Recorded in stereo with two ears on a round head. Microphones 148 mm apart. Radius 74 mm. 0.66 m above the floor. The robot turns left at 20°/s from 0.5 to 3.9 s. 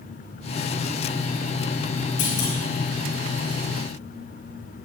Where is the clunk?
80° left, 6 m; by 2.6 s 75° left (ahead or behind), 6 m.